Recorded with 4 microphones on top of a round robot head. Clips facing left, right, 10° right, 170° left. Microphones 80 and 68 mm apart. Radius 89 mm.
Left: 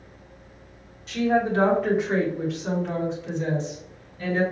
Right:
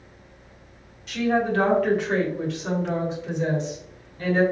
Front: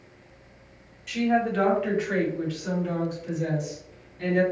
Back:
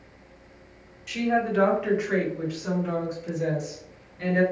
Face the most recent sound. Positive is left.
turn(degrees=-140)